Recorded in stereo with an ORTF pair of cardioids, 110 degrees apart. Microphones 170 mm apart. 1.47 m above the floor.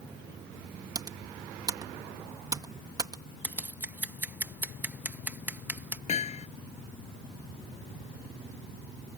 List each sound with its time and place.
0.9 s typing on a keyboard: 25° right
3.4 s scissors: 10° right
6.1 s hammering: 40° left